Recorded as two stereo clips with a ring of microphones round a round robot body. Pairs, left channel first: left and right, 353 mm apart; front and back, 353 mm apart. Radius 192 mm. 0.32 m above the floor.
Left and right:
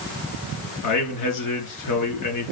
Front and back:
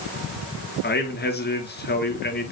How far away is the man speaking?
About 4 m.